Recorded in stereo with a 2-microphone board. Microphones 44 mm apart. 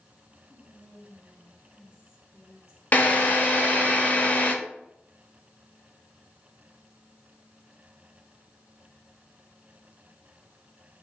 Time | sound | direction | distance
0.5 | whispering | 70° left (ahead or behind) | 2 m
2.9 | a drill | 45° left (ahead or behind) | 0.7 m